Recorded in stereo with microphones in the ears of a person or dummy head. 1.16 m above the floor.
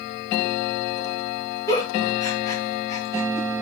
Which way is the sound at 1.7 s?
20° left (ahead or behind).